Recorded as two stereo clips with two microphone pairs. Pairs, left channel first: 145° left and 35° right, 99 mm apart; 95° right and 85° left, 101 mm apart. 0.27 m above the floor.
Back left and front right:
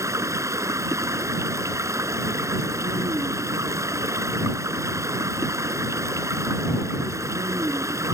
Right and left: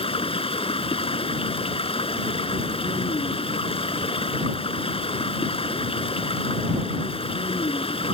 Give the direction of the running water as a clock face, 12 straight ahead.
3 o'clock.